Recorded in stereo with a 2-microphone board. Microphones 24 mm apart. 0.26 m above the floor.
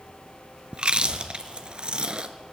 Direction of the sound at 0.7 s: 40° right (ahead or behind).